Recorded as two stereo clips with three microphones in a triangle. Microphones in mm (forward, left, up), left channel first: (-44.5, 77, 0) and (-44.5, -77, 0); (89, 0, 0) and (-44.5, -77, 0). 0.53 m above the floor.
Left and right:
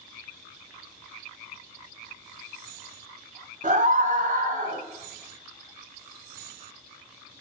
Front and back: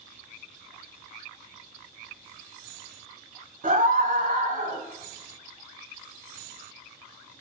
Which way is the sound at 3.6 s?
125° right.